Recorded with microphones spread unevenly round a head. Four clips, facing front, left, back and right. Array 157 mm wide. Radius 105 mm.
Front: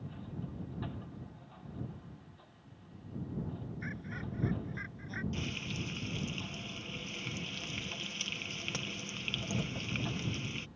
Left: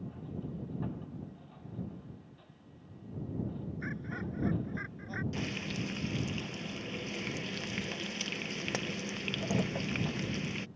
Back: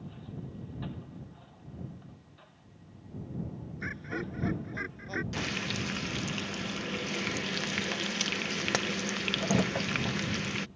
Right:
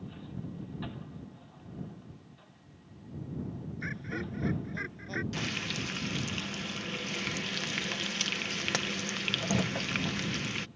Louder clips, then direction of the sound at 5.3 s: Right 1 dB, back 5 dB; 165° right.